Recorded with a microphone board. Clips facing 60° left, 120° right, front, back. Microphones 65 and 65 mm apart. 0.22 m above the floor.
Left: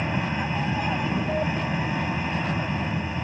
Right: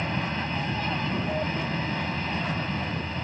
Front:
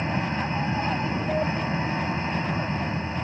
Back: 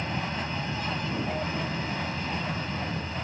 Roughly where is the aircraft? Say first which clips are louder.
Left 2 dB, front 5 dB; ahead.